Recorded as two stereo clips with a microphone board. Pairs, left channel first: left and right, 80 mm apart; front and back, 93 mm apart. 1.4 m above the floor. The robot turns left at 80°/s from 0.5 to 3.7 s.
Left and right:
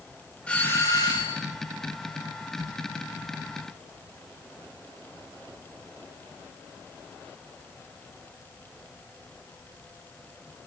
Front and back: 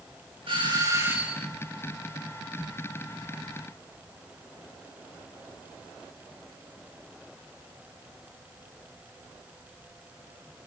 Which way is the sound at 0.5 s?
165° left.